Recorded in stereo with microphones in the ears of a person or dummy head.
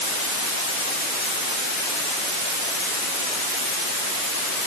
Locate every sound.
Only background noise.